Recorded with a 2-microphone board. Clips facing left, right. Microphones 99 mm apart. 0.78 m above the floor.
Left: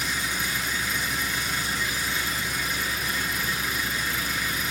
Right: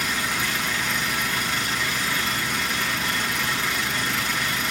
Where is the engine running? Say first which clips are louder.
Right 3 dB; 85° right, 6 m.